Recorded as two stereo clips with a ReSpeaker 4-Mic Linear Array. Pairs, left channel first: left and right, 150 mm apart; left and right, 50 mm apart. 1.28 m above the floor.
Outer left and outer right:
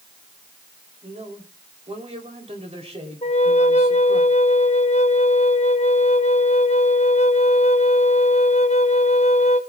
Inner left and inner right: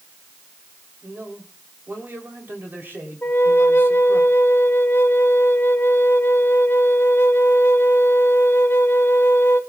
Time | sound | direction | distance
1.0 | a man speaking | 45° right (ahead or behind) | 3.5 m
3.2 | a flute | 45° left (ahead or behind) | 1.0 m